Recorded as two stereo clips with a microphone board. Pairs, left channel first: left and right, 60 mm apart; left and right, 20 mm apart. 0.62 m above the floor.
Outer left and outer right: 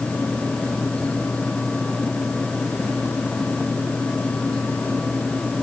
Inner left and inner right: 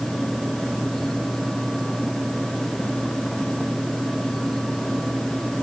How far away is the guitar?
No guitar in this recording.